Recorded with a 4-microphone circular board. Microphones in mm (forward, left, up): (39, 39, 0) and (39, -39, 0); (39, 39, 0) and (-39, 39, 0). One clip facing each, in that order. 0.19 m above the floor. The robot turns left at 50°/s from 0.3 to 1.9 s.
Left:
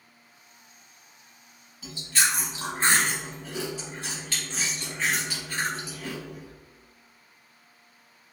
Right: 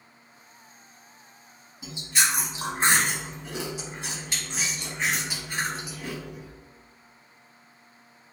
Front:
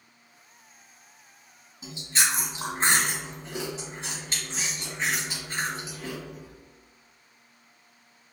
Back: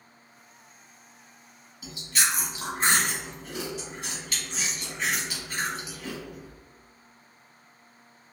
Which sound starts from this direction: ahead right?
Chewing, at 1.8 s.